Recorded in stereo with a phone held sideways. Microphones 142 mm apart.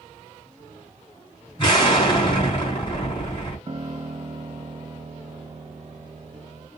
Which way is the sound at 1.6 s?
35° left (ahead or behind).